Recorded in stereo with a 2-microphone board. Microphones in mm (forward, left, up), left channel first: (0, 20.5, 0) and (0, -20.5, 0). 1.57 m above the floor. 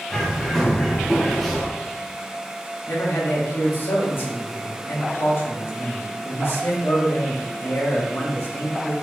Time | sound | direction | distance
0.1 | a bird | 5° left (ahead or behind) | 0.7 m
2.9 | a man speaking | 65° left (ahead or behind) | 0.8 m